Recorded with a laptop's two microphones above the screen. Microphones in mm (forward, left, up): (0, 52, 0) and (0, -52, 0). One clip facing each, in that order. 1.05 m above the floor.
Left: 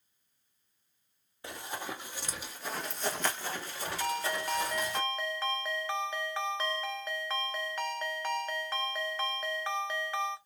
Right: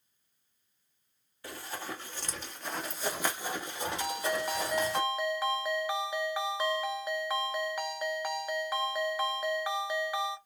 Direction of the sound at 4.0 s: 10° right (ahead or behind).